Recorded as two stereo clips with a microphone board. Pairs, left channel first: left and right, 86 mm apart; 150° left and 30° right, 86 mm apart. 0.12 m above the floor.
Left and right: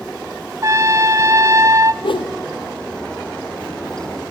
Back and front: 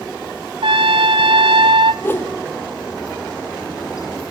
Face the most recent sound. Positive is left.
turn(degrees=90)